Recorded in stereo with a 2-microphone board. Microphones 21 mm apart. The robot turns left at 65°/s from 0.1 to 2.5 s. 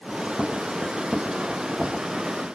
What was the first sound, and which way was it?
Only background noise.